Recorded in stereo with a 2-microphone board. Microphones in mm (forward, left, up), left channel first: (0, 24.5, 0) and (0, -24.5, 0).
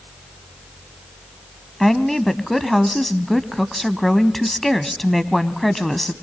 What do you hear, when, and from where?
1.8 s a woman speaking: 5° left (ahead or behind), 1.0 m